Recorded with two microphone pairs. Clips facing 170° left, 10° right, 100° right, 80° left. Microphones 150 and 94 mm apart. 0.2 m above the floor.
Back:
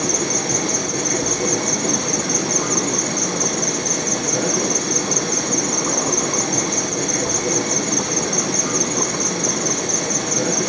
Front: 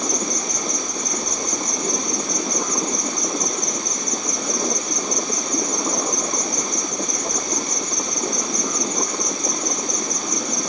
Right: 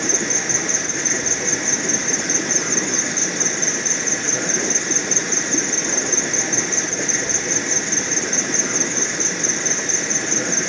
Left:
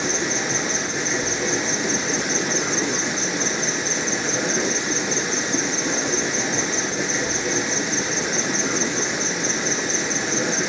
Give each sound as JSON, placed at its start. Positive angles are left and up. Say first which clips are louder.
{"t": 0.0, "sound": "an insect", "louder": "back 4 dB, even", "azimuth_deg": 165, "distance_m": 1.4}